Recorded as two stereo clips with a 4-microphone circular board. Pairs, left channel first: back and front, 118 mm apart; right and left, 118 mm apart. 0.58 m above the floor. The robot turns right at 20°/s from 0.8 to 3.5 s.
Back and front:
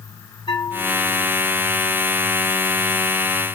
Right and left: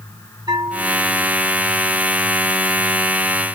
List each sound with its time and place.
0.5 s a bell: 135° left, 1.7 m; by 1.2 s 140° left, 1.7 m